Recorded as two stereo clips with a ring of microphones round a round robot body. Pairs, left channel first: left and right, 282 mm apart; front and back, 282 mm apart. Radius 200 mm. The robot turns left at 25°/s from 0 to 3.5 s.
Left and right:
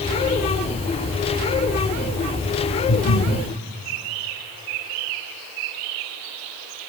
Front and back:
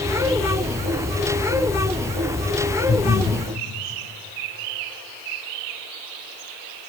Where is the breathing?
80° left, 7 m; by 3.4 s 65° left, 7 m.